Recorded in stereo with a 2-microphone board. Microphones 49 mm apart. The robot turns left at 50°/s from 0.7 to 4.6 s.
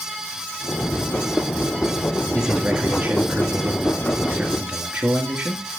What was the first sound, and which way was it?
A man speaking, 40° right.